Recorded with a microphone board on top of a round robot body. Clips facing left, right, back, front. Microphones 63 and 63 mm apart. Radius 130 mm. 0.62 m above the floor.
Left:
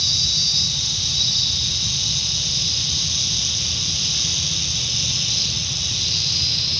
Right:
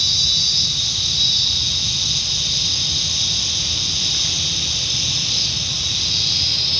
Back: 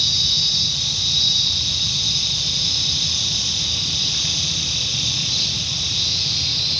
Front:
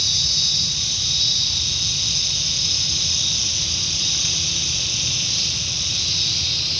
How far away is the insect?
About 7 m.